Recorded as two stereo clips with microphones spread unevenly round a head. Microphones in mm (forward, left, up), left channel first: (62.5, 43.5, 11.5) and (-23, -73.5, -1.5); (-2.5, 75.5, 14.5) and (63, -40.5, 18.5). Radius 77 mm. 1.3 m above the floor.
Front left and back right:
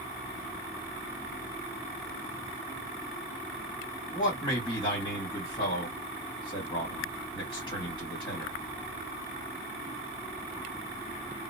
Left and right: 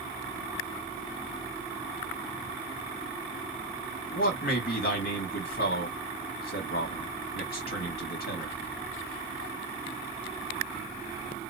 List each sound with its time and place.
4.1 s a man speaking: 115° left, 1.7 m